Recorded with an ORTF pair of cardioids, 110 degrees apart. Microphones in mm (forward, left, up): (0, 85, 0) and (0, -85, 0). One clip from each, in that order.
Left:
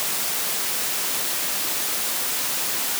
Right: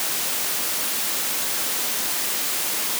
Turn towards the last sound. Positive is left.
No sound to turn to.